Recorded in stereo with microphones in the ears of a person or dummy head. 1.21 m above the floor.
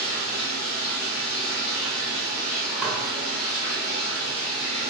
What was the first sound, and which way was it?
Running water, 60° left (ahead or behind).